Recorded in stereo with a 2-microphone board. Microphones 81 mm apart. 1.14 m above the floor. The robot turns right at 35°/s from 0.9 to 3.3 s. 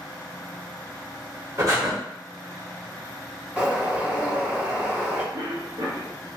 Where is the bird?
10° right (ahead or behind), 0.9 m.